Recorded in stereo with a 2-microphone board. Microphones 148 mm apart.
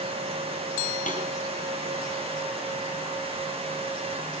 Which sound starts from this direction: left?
A snare drum, at 1.1 s.